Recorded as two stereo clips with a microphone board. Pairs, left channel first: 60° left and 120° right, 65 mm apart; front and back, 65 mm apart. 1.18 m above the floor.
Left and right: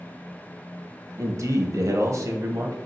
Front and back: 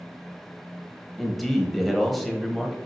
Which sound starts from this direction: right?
A man speaking, at 1.2 s.